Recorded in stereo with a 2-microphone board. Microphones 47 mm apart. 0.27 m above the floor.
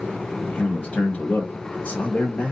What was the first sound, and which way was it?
A man speaking, 25° left (ahead or behind).